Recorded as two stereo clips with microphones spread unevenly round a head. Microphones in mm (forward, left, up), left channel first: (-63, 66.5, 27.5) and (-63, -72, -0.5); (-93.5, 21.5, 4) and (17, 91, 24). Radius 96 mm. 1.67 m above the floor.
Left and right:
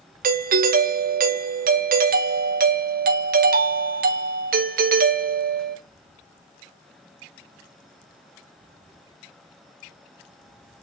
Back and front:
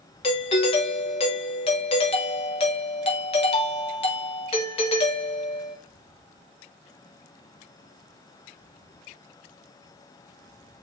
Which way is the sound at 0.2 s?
90° right.